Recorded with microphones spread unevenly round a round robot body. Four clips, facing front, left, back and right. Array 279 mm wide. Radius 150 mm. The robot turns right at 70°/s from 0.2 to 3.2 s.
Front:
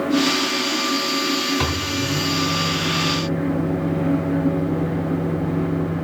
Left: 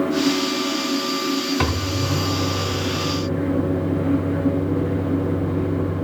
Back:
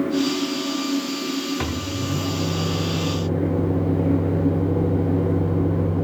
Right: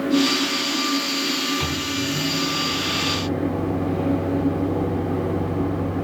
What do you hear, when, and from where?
1.6 s a microwave: 85° left, 1.1 m; by 6.1 s 160° right, 1.1 m